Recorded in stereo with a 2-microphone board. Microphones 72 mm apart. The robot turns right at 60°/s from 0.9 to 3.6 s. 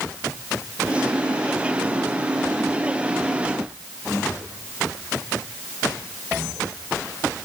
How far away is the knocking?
I don't hear knocking.